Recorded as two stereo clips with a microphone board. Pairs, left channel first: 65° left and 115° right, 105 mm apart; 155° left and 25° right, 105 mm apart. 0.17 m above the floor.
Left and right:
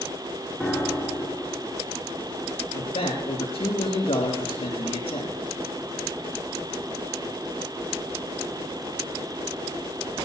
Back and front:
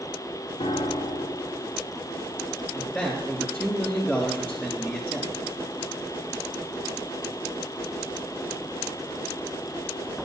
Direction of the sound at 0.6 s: 150° left.